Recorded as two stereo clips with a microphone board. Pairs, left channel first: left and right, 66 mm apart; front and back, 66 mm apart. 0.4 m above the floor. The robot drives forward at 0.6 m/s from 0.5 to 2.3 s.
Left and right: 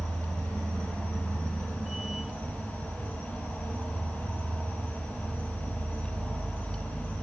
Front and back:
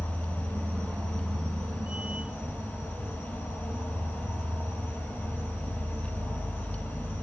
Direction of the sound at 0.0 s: 55° right.